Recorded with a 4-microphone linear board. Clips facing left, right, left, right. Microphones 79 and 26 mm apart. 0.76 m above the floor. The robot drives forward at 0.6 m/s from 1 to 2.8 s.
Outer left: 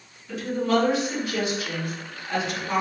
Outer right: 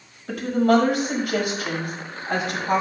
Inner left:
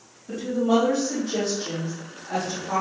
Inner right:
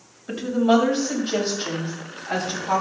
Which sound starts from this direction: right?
A woman speaking, at 0.3 s.